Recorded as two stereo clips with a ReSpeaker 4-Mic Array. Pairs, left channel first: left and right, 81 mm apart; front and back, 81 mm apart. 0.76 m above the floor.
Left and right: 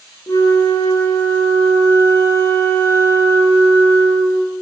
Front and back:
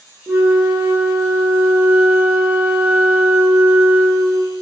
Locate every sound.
0.3 s a flute: 120° left, 0.6 m